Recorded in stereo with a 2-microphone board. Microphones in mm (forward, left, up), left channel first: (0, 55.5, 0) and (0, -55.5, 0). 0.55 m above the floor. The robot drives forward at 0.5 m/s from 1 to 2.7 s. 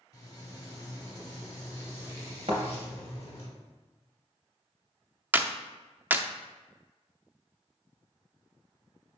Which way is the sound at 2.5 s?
65° right (ahead or behind).